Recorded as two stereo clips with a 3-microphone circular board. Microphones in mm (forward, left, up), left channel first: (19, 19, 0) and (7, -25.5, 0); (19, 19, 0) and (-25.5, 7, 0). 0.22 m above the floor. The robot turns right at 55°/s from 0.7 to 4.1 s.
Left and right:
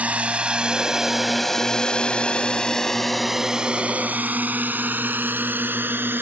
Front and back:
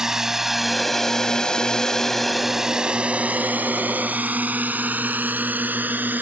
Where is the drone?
100° right; by 6.2 s 130° right.